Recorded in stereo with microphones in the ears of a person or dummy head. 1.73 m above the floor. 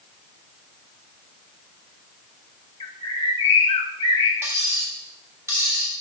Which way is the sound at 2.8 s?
30° left (ahead or behind).